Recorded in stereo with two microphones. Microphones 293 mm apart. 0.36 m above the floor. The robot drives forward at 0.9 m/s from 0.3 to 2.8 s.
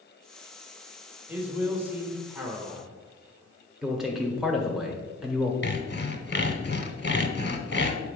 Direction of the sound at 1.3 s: 5° right (ahead or behind).